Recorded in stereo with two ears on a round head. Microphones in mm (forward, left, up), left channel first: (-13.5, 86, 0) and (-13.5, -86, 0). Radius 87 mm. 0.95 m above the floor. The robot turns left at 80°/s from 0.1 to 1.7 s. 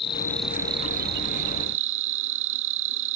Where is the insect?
25° left; by 3.2 s 100° right.